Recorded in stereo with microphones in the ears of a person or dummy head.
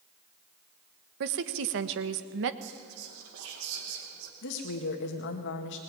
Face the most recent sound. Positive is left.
turn(degrees=65)  # may be behind; listen again after turning